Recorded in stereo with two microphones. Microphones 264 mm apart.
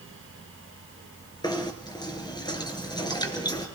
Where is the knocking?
15° left (ahead or behind), 3.5 m.